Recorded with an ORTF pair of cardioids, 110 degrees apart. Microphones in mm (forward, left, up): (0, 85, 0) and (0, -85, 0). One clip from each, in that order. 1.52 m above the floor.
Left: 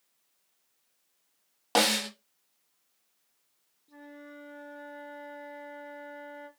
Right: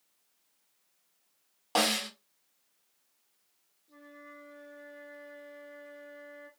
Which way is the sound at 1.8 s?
30° left.